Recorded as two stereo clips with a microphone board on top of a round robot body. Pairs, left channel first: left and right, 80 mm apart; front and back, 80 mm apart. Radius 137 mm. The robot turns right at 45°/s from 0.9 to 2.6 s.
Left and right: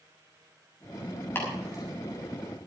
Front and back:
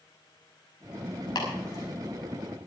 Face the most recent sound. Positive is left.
turn(degrees=85)